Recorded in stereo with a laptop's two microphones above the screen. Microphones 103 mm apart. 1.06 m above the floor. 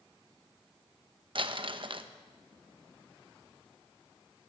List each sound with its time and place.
1.4 s crumpling: 55° right (ahead or behind), 1.0 m